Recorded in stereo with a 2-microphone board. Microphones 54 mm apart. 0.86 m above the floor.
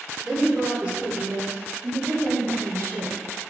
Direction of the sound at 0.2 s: 5° right (ahead or behind).